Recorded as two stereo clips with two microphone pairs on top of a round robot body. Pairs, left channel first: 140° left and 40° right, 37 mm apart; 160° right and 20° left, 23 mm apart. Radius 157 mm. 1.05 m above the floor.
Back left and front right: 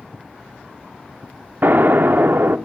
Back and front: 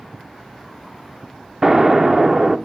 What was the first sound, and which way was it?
An explosion, 45° right.